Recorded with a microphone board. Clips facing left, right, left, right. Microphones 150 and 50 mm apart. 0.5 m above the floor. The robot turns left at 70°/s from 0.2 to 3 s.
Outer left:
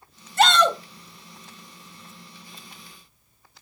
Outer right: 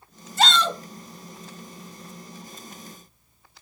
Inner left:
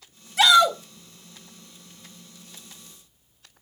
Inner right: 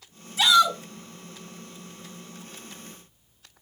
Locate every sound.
0.4 s a shout: 70° left (ahead or behind), 2.5 m; by 0.8 s 60° left (ahead or behind), 2.5 m